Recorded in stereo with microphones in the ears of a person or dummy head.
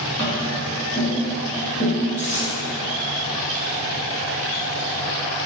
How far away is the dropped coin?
About 1.3 m.